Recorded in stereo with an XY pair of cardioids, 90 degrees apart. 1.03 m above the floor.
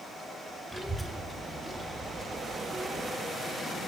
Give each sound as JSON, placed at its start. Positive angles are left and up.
{"t": 0.7, "sound": "a child speaking", "azimuth_deg": -15, "distance_m": 2.0}